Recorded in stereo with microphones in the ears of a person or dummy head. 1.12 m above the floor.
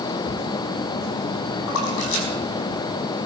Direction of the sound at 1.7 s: 75° left (ahead or behind).